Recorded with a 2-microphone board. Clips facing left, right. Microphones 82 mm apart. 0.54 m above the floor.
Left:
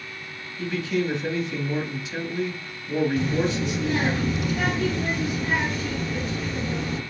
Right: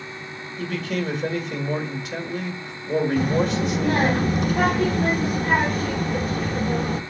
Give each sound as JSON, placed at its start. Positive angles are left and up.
{"t": 0.6, "sound": "a man speaking", "side_deg": -65, "distance_m": 1.8}
{"t": 3.2, "sound": "a child speaking", "side_deg": -50, "distance_m": 0.7}